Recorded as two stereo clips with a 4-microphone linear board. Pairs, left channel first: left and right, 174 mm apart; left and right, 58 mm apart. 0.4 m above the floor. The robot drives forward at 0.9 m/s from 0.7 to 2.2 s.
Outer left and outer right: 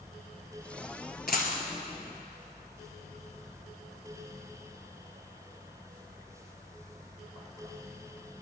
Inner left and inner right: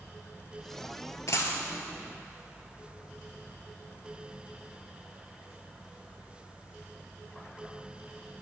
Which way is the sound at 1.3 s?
65° left (ahead or behind).